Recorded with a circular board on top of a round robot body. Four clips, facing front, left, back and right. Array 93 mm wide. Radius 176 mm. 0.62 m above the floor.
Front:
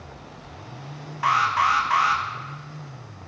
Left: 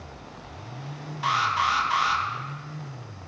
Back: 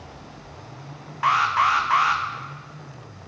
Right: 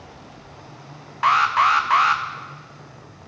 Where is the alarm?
95° right, 1.1 m.